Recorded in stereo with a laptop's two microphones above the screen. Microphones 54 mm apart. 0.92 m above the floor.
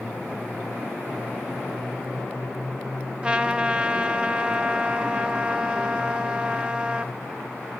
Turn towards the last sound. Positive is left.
turn(degrees=-20)  # may be behind; listen again after turning